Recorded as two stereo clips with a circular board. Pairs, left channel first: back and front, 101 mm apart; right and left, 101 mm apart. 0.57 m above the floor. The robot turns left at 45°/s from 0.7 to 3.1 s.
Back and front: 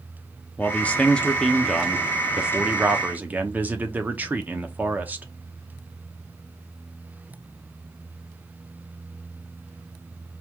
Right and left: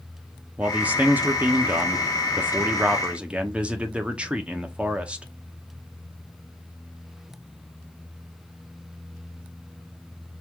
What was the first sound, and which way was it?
A man speaking, 140° left.